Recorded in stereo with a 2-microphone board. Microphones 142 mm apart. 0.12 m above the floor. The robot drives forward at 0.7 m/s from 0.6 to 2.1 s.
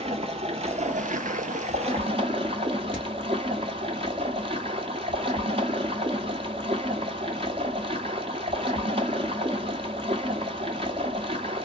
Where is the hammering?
5° left (ahead or behind), 2 m.